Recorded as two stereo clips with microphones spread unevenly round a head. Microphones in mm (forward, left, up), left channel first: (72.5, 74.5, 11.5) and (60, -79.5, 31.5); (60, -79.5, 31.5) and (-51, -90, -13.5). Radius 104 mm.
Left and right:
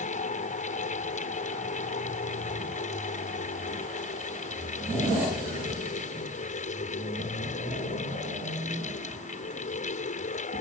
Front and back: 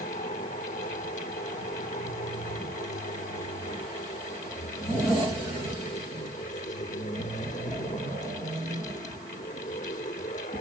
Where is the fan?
45° left.